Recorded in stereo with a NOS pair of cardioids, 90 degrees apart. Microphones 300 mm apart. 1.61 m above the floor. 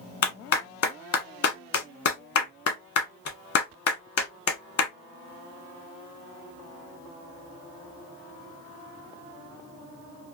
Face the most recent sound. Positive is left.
turn(degrees=55)